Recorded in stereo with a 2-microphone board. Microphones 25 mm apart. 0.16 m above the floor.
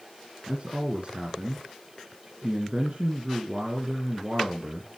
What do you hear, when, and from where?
0.5 s a man speaking: 50° right (ahead or behind), 2.5 m